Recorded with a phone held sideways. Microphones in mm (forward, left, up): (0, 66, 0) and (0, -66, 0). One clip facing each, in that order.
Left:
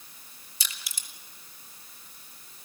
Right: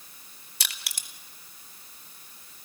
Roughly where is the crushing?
Right.